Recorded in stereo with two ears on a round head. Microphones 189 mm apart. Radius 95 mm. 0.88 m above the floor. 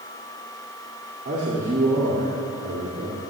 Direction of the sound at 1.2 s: 50° right (ahead or behind).